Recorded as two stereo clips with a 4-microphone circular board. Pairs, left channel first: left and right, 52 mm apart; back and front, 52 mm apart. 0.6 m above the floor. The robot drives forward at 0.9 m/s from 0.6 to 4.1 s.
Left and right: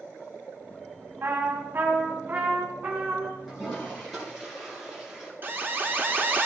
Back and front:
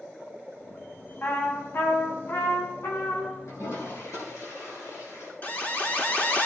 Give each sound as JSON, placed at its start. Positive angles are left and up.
{"t": 1.2, "sound": "a trumpet", "azimuth_deg": -130, "distance_m": 2.5}
{"t": 3.5, "sound": "a toilet flushing", "azimuth_deg": -175, "distance_m": 7.0}
{"t": 5.4, "sound": "an alarm", "azimuth_deg": -130, "distance_m": 1.4}